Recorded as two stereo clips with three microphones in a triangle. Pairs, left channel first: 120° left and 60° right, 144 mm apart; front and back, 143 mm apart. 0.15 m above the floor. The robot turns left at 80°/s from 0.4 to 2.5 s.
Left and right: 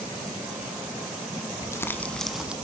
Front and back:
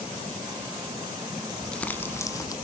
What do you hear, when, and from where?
1.6 s crumpling: 85° left, 0.9 m; by 2.5 s 15° left, 0.9 m